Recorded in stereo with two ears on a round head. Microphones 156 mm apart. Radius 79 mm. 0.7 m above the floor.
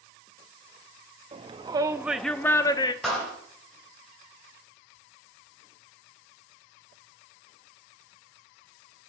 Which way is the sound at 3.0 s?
Centre (ahead or behind).